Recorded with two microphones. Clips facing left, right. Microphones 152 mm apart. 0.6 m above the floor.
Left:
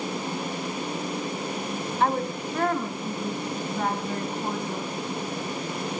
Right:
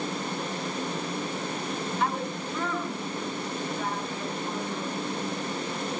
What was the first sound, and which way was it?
A woman speaking, 50° left (ahead or behind).